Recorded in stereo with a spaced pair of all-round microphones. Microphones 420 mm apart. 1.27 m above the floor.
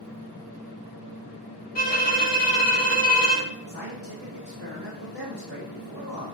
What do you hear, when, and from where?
1.8 s a violin: 20° left (ahead or behind), 2.0 m
3.7 s a man speaking: 30° right (ahead or behind), 3 m